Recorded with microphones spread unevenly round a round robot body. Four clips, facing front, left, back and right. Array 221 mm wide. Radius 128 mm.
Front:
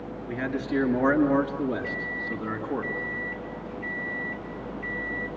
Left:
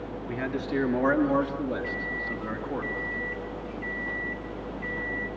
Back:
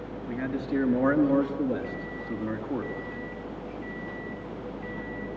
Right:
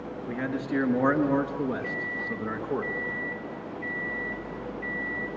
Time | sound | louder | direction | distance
0.3 | a man speaking | right 1 dB, front 1 dB | 125° right | 5.5 m
1.8 | a microwave | even, front 2 dB | 155° right | 2.5 m